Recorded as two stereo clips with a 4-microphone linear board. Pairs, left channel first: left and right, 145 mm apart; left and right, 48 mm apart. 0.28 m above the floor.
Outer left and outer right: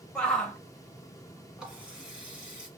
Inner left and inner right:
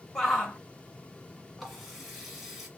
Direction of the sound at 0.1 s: 5° left (ahead or behind).